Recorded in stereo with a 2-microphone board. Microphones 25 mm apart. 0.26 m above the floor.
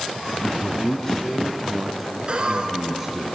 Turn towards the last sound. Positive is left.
turn(degrees=-35)  # may be behind; listen again after turning